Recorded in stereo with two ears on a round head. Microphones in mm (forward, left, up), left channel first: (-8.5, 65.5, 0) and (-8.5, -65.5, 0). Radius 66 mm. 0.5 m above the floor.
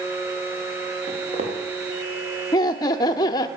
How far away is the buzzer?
No buzzer in this recording.